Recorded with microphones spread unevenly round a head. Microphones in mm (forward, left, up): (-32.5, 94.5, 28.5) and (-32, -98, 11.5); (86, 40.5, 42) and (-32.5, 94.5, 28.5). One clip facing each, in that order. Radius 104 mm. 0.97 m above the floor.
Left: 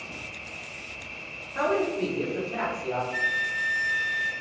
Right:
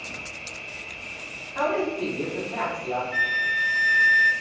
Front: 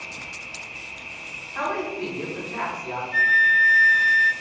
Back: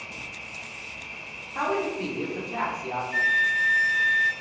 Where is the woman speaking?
125° left, 0.9 m.